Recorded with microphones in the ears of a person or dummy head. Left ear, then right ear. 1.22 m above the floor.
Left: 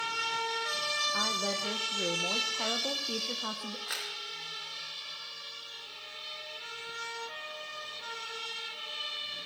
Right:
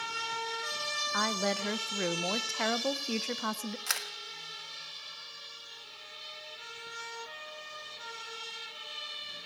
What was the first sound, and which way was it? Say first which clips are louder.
A woman speaking: even; 55° right (ahead or behind).